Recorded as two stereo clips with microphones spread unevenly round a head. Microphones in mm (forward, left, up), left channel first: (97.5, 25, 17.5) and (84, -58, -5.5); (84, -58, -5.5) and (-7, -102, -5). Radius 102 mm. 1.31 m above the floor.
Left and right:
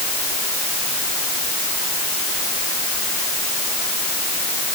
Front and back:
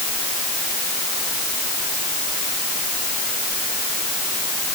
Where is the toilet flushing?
No toilet flushing in this recording.